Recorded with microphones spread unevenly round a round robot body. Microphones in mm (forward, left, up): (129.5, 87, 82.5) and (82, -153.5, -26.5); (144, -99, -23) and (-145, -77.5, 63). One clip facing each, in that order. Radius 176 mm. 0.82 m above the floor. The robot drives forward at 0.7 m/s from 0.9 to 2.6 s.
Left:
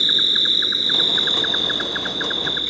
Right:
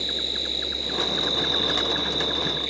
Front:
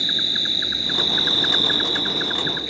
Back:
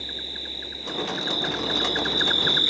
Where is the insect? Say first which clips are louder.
Left 2 dB, front 7 dB; 40° left; by 2.7 s 115° left.